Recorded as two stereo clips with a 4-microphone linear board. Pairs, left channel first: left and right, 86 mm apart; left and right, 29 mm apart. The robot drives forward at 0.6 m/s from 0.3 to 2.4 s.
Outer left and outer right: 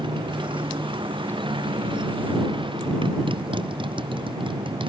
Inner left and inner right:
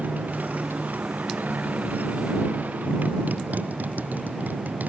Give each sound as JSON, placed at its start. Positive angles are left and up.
{"t": 0.0, "sound": "a motorcycle", "side_deg": -75}